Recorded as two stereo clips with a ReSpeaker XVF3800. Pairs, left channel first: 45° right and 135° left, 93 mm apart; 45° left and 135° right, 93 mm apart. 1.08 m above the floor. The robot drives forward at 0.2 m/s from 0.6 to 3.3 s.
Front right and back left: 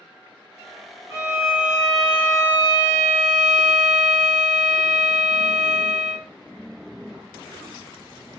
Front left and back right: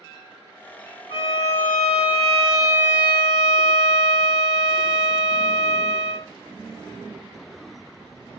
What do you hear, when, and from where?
1.1 s a violin: 70° left, 1.2 m; by 6.3 s 95° left, 1.1 m